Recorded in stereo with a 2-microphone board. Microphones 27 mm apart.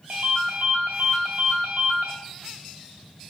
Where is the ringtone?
75° right (ahead or behind), 0.9 m.